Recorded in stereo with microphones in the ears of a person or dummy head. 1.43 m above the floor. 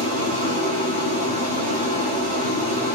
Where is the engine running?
35° right (ahead or behind), 2.0 m.